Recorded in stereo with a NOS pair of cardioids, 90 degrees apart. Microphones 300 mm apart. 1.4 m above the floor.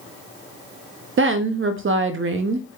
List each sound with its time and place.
1.2 s a woman speaking: 45° right, 0.5 m